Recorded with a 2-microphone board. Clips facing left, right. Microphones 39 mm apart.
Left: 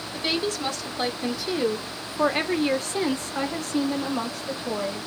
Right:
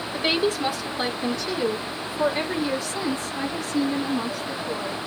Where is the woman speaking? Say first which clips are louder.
Right 4 dB; 25° right (ahead or behind), 1.8 m; by 5.1 s 80° left, 3 m.